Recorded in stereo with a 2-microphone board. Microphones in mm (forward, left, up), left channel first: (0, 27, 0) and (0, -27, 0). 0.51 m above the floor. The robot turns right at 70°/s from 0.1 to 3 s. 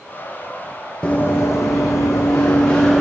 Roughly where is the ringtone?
No ringtone in this recording.